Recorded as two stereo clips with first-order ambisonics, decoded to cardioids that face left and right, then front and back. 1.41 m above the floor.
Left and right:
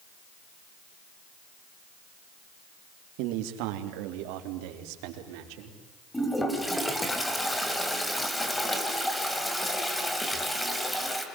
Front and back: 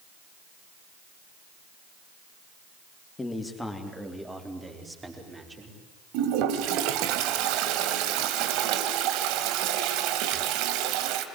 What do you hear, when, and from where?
3.2 s a man speaking: 80° right, 2.5 m; by 5.8 s 105° right, 5.5 m
6.1 s a toilet flushing: 175° left, 2.5 m